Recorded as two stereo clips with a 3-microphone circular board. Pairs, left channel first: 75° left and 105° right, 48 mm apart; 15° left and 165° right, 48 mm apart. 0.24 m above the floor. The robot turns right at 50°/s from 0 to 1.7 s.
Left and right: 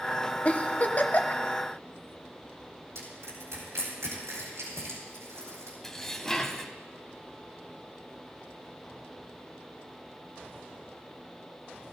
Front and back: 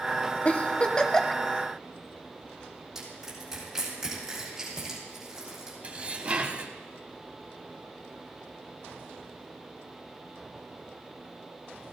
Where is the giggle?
45° left, 0.9 m; by 1.4 s 95° left, 0.9 m.